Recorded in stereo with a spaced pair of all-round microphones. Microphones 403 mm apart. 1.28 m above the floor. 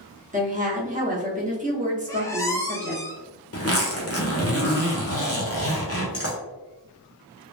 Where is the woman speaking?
20° right (ahead or behind), 0.9 m.